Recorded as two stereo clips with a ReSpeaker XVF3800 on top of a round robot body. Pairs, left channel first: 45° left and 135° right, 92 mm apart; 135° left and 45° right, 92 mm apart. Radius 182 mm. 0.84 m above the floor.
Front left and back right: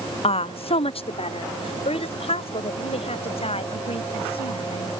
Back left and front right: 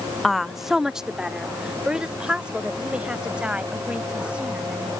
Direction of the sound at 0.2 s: 45° left.